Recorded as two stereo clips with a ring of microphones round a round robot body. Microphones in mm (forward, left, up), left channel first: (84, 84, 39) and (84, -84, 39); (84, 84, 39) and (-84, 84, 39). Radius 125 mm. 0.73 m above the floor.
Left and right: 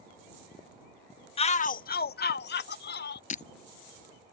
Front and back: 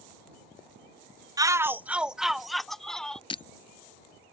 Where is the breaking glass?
55° left.